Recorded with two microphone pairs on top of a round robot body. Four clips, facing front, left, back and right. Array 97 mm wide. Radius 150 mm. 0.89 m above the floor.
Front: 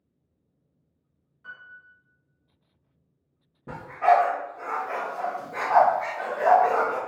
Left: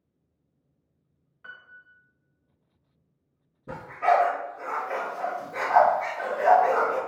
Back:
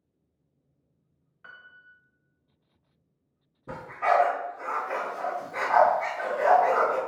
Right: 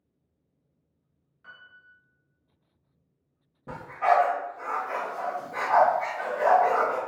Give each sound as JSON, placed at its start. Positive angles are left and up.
{"t": 1.4, "sound": "a piano", "azimuth_deg": 140, "distance_m": 0.9}
{"t": 3.7, "sound": "a dog barking", "azimuth_deg": -50, "distance_m": 1.2}